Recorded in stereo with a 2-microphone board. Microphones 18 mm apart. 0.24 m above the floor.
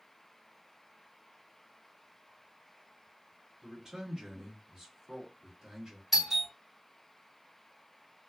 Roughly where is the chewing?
I don't hear chewing.